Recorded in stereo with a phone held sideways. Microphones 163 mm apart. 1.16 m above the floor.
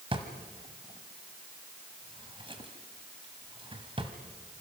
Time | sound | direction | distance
0.1 | a drawer | 35° right (ahead or behind) | 1.9 m